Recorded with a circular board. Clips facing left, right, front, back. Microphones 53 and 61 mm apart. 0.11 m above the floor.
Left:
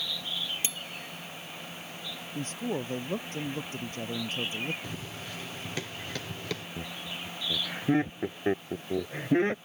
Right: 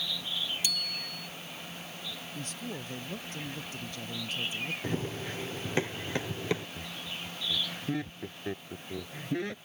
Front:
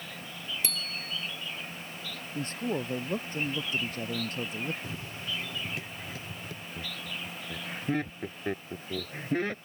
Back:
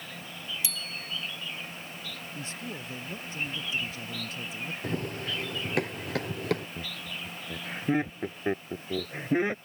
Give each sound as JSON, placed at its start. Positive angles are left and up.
{"t": 0.6, "sound": "a bicycle bell", "azimuth_deg": 30}
{"t": 2.4, "sound": "a man speaking", "azimuth_deg": 40}
{"t": 4.8, "sound": "running footsteps", "azimuth_deg": -140}
{"t": 6.8, "sound": "laughter", "azimuth_deg": 120}